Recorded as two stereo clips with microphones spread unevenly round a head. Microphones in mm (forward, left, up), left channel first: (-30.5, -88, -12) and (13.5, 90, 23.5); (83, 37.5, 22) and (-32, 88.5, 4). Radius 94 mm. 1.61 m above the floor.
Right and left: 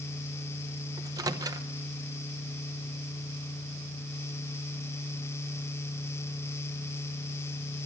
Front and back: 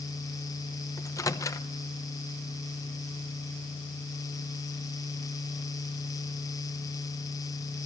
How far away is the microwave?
About 0.8 m.